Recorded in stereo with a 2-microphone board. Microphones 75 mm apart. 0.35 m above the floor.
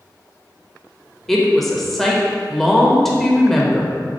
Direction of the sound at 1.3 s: 5° left (ahead or behind).